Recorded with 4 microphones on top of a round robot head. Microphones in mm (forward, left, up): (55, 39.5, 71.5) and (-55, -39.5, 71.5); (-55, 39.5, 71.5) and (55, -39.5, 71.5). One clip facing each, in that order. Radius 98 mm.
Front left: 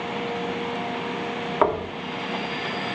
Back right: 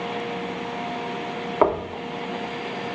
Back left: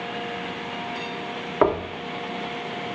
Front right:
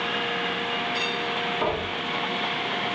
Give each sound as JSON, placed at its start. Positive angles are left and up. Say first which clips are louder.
{"t": 1.6, "sound": "knocking", "louder": "back right 2 dB, back left 9 dB", "azimuth_deg": 145, "distance_m": 0.9}